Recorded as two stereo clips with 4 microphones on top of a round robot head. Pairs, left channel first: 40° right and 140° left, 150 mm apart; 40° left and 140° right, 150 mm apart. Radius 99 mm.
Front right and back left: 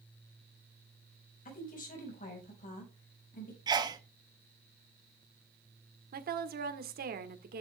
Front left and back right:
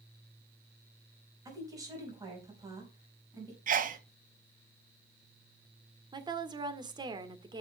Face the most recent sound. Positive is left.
turn(degrees=160)